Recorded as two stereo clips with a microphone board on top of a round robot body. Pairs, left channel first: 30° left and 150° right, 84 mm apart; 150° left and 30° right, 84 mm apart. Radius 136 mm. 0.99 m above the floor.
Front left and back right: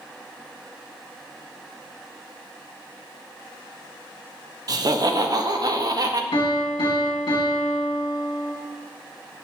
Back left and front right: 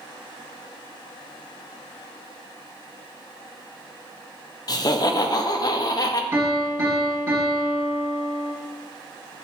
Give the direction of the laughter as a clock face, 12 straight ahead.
6 o'clock.